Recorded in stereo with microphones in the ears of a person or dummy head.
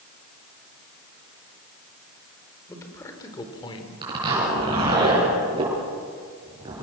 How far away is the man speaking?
About 4 m.